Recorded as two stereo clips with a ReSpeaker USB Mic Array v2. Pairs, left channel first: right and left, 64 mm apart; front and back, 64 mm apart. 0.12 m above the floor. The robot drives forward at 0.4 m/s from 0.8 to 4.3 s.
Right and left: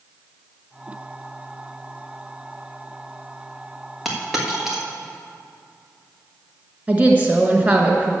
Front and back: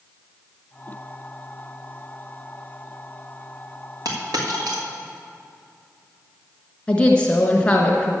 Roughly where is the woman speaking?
Ahead left.